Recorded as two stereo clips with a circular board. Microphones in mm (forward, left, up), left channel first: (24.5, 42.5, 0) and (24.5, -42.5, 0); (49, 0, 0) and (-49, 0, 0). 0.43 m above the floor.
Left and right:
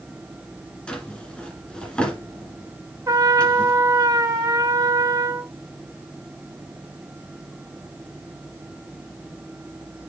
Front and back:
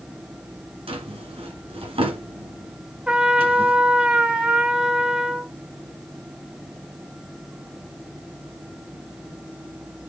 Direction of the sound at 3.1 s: 110° right.